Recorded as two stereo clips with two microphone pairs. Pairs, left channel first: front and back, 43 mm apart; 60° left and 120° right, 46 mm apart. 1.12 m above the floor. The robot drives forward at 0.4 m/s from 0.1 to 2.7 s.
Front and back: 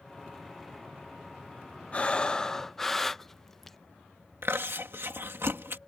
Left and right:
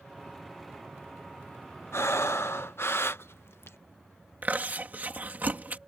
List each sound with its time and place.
1.9 s breathing: 60° left; by 3.8 s 85° left
4.4 s chewing: 165° right